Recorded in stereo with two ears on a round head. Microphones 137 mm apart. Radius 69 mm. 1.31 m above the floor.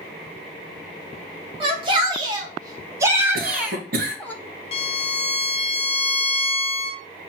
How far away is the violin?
About 0.8 m.